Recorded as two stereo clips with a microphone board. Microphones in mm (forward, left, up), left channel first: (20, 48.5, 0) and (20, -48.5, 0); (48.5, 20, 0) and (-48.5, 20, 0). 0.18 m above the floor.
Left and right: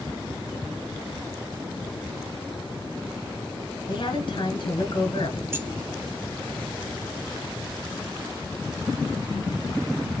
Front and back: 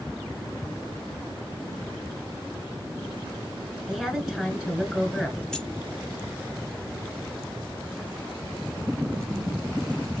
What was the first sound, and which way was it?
A woman speaking, 95° left.